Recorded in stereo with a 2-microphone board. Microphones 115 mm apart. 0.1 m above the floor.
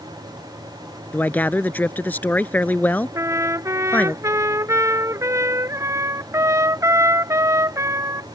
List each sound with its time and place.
1.1 s a man speaking: 15° left (ahead or behind)
3.1 s a trumpet: 30° right (ahead or behind)